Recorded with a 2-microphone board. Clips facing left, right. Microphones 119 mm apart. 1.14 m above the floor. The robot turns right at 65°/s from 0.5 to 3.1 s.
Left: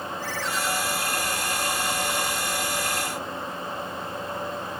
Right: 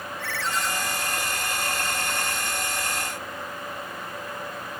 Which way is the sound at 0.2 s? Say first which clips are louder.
Right 2 dB; 75° right (ahead or behind).